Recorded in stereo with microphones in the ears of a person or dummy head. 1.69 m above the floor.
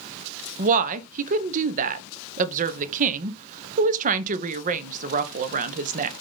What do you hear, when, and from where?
0.6 s a woman speaking: 35° right (ahead or behind), 0.9 m